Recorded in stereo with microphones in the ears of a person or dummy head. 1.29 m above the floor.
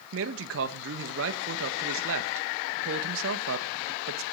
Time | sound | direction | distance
0.1 | a man speaking | 70° right (ahead or behind) | 1.9 m